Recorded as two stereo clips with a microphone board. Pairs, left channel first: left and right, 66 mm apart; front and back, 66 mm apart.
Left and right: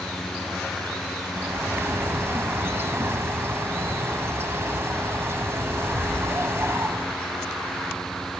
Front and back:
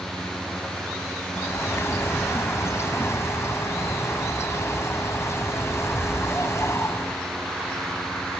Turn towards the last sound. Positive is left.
turn(degrees=-40)